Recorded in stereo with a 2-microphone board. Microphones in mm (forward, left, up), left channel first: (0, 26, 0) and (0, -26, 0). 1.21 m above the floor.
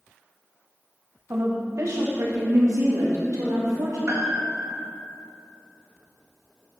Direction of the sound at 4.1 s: 55° right (ahead or behind).